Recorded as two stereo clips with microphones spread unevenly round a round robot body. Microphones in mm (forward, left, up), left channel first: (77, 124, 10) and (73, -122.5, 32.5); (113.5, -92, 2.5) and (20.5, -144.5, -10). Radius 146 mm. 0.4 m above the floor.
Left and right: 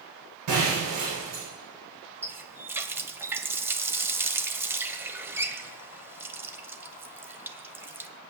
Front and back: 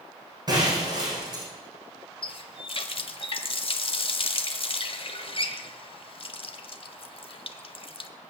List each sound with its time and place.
0.5 s breaking glass: 100° right, 9.5 m
2.2 s a running tap: 10° right, 1.3 m